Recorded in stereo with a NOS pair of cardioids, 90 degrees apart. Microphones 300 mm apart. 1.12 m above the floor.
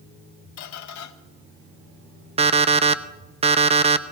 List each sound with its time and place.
0.6 s a squeak: 70° left, 0.9 m
2.4 s an alarm clock: 20° right, 0.6 m